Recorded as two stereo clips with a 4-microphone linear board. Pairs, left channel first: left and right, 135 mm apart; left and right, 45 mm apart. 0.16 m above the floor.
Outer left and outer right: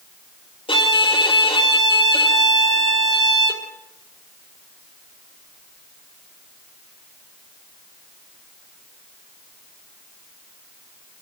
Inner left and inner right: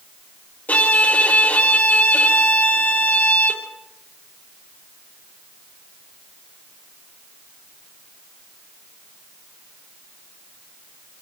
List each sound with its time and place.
0.7 s a violin: 40° left (ahead or behind), 4.5 m